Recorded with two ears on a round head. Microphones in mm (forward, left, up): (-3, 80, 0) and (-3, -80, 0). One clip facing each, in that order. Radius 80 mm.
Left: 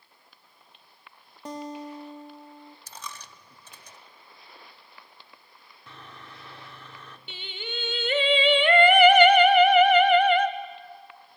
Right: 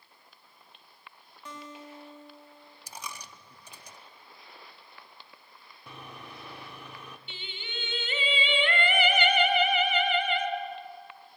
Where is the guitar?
35° left (ahead or behind), 0.9 m.